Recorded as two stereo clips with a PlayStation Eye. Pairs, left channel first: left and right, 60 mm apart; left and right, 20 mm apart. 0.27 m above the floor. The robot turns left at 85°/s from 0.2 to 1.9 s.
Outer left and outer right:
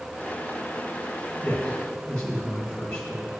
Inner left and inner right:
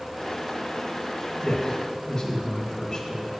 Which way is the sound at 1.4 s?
25° left (ahead or behind).